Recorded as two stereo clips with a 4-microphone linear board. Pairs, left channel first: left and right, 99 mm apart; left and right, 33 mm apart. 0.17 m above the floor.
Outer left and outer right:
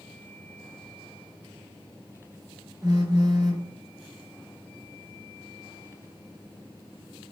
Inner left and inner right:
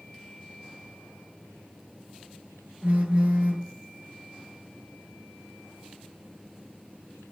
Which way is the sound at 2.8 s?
45° right (ahead or behind).